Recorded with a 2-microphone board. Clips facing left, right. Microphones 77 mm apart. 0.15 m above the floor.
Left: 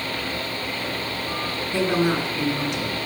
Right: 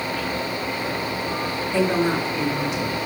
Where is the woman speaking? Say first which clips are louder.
Right 1 dB; 20° left (ahead or behind), 2.0 m; by 3.0 s 10° right (ahead or behind), 2.5 m.